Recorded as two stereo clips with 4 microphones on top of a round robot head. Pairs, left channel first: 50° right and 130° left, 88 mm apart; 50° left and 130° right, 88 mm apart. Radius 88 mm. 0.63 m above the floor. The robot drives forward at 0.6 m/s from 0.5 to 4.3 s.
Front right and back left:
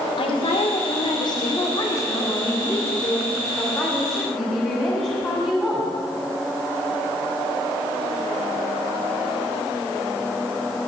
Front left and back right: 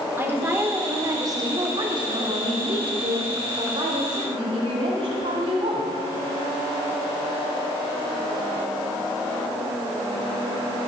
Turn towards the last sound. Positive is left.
turn(degrees=-135)